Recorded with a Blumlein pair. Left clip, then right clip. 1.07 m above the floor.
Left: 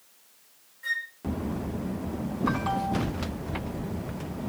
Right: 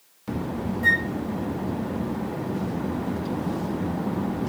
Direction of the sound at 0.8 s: 60° right.